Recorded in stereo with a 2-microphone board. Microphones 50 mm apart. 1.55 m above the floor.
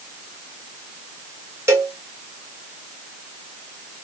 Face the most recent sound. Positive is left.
turn(degrees=-70)  # may be behind; listen again after turning